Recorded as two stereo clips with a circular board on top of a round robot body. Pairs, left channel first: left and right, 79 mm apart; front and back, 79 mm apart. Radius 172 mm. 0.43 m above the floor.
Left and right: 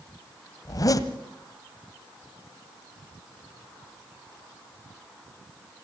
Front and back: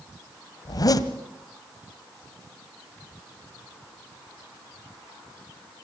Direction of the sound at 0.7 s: 45° left.